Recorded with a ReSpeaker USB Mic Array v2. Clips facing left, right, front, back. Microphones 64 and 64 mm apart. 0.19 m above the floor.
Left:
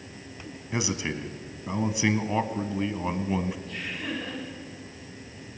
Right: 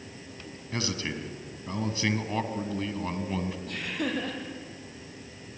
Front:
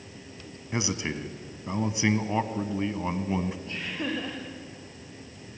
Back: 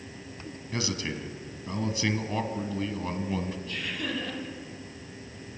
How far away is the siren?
No siren in this recording.